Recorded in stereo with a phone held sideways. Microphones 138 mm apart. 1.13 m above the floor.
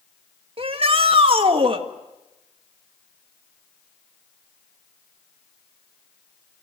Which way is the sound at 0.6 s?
40° right (ahead or behind).